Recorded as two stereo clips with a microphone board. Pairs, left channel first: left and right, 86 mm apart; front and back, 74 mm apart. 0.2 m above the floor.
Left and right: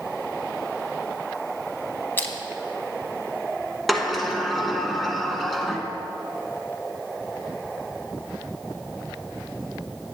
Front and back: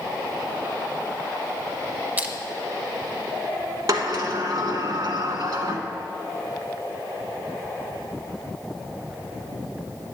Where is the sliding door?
Straight behind, 0.9 m.